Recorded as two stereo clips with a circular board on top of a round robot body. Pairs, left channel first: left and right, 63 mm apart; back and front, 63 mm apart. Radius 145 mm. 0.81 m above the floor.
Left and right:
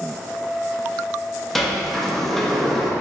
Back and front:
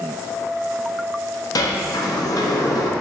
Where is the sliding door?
Straight behind, 0.6 m.